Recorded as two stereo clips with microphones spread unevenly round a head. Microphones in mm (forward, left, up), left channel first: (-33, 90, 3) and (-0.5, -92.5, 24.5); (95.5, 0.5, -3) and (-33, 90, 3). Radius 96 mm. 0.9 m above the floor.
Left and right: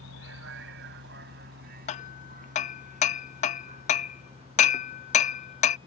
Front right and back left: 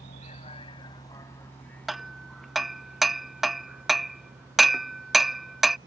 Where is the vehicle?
90° right; by 5.9 s 145° right.